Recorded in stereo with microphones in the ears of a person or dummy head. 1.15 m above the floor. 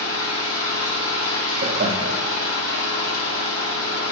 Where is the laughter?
35° right (ahead or behind), 0.8 m.